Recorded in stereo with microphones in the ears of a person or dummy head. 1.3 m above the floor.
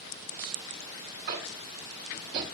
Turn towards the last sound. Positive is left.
turn(degrees=-50)  # may be behind; listen again after turning